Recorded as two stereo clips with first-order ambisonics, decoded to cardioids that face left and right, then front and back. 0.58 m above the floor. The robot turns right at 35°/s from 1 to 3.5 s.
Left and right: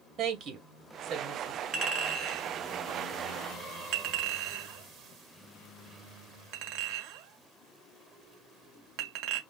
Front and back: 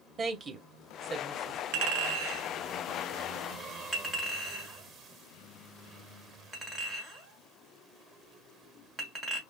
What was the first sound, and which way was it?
A woman speaking, 130° right.